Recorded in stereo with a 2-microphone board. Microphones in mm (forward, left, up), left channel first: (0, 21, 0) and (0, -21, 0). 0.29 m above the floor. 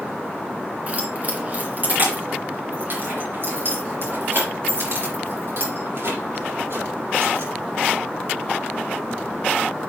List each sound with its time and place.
0.9 s keys jangling: 30° right (ahead or behind), 2.5 m; by 7.5 s 65° right (ahead or behind), 6.5 m